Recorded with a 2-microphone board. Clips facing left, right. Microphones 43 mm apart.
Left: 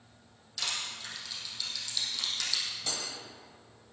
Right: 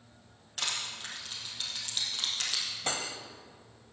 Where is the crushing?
40° right (ahead or behind), 4 m.